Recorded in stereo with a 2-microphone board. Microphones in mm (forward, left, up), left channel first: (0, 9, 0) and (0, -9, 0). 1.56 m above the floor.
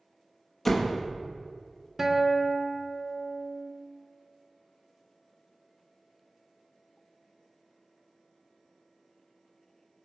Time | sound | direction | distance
0.7 | a door slam | 15° left (ahead or behind) | 1.1 m
2.0 | a guitar | 20° right (ahead or behind) | 1.0 m